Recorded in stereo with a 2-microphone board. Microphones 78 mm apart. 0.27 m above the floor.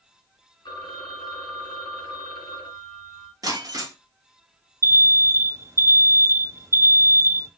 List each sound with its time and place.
0.7 s a phone ringing: 65° left (ahead or behind), 1.7 m
3.4 s breaking glass: 50° right (ahead or behind), 1.6 m
4.8 s an alarm: 35° right (ahead or behind), 0.7 m